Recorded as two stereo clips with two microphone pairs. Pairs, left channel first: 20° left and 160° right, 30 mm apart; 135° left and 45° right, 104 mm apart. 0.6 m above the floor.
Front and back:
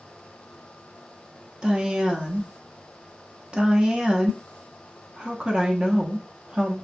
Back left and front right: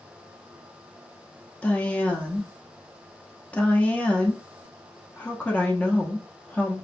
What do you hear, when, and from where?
1.6 s a woman speaking: 160° right, 0.8 m